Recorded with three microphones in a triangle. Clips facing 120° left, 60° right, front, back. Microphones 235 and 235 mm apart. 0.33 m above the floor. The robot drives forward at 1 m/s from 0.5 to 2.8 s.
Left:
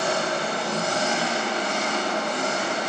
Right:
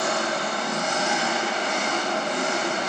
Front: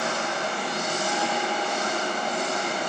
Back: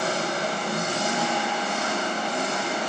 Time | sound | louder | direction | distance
0.0 | an engine running | left 1 dB, back 2 dB | 165° left | 0.7 m